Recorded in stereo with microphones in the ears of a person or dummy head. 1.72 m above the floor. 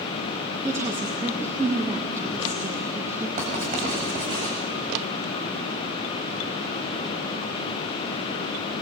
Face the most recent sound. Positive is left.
turn(degrees=-40)  # may be behind; listen again after turning